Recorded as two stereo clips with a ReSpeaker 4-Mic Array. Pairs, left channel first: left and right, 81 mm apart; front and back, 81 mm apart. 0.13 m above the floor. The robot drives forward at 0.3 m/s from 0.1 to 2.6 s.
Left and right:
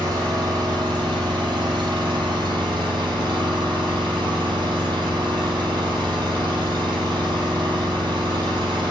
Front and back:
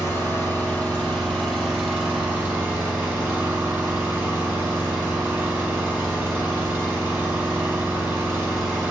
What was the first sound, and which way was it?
An engine running, 60° right.